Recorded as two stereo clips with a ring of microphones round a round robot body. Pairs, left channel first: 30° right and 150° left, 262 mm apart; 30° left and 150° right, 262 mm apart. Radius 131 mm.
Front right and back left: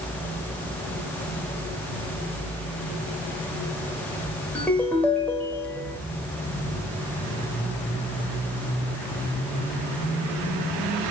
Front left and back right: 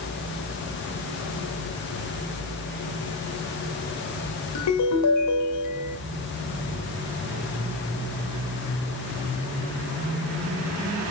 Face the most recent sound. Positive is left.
turn(degrees=55)